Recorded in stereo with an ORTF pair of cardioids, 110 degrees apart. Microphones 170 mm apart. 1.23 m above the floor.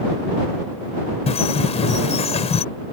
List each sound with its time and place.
1.3 s a bird: 35° left